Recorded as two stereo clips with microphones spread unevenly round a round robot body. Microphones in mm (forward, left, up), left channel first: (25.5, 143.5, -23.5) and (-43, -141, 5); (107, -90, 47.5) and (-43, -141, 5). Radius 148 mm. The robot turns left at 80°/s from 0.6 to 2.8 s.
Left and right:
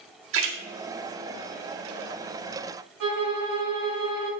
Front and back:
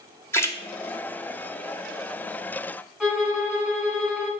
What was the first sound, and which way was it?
A splash, 65° right.